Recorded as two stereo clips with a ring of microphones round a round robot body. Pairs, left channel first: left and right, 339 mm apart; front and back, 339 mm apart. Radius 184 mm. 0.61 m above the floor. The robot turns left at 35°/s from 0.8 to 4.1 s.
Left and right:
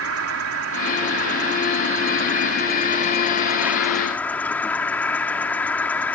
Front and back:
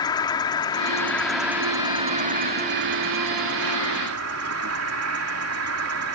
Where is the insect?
70° right; by 6.2 s 175° left.